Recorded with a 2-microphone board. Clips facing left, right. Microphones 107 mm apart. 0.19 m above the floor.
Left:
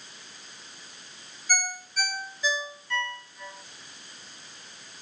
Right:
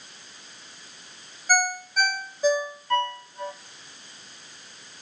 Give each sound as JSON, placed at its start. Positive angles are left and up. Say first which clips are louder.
{"t": 1.5, "sound": "a ringtone", "louder": "right 8 dB", "side_deg": -50, "distance_m": 1.5}